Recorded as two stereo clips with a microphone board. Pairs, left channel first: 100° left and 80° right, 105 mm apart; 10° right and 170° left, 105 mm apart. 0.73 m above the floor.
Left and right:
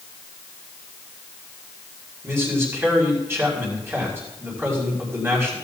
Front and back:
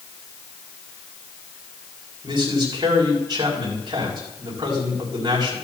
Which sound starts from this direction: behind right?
A man speaking, at 2.2 s.